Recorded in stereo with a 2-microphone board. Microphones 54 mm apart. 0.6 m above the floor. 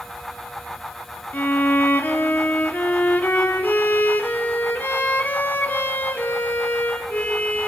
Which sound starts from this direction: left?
A violin, at 1.3 s.